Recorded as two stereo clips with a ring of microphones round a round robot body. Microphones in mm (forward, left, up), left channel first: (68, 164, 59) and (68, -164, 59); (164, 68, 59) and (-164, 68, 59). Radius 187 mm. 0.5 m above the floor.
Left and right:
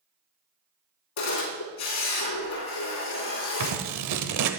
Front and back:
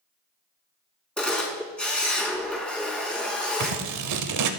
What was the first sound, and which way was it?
A camera shutter, 85° left.